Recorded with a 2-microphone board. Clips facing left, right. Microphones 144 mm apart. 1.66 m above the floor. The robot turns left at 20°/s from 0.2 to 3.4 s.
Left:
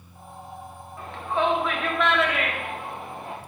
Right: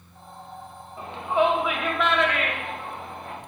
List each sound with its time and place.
1.0 s a shout: 20° right (ahead or behind), 1.2 m; by 3.4 s 25° left (ahead or behind), 1.2 m